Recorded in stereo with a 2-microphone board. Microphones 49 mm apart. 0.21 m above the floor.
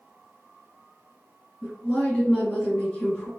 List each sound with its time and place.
1.6 s a woman speaking: 15° left (ahead or behind), 1.5 m